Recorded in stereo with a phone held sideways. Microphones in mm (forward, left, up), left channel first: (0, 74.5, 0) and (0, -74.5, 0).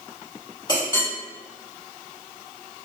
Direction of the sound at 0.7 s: 30° left (ahead or behind).